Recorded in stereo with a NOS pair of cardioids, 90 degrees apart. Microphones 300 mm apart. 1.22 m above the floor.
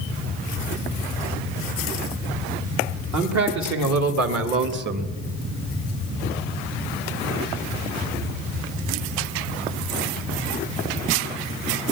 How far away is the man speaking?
About 3 m.